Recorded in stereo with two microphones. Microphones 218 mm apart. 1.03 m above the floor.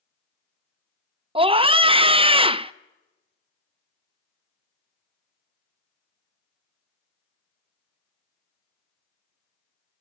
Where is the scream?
25° right (ahead or behind), 0.5 m.